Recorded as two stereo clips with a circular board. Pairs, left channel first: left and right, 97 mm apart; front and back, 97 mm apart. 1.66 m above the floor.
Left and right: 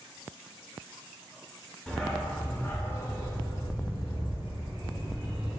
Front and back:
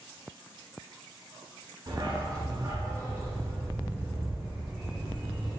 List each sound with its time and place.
1.9 s a dog barking: 170° left, 1.8 m; by 5.6 s 90° left, 3 m